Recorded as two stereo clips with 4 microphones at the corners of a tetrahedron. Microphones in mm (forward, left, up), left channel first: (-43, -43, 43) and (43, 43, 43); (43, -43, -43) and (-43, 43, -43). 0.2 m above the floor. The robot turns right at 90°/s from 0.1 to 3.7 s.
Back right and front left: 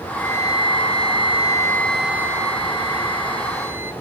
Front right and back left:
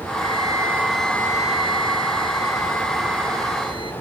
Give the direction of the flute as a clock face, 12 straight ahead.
7 o'clock.